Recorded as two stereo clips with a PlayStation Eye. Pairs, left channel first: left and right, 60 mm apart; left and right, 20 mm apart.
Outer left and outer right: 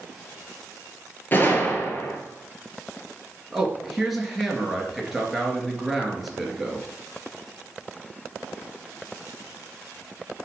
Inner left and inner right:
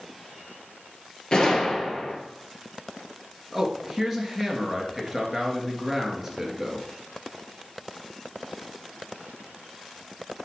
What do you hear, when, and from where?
1.3 s a gunshot: 35° left (ahead or behind), 1.9 m
3.5 s a man speaking: 5° right (ahead or behind), 2 m